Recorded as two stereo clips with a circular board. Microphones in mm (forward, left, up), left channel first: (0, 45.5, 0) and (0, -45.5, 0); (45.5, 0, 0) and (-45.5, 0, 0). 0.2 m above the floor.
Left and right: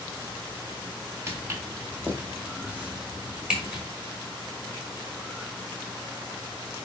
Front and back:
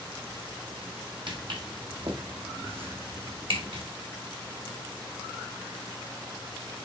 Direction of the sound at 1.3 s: 150° right.